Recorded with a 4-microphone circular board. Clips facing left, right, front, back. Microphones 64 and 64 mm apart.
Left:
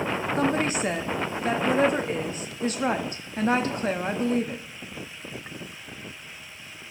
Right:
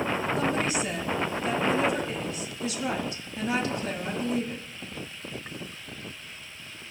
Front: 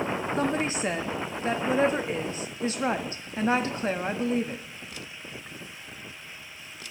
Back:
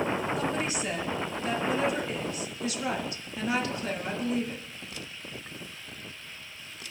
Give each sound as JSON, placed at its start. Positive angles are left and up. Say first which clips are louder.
{"t": 0.4, "sound": "a woman speaking", "louder": "left 3 dB, front 3 dB", "azimuth_deg": 50, "distance_m": 1.1}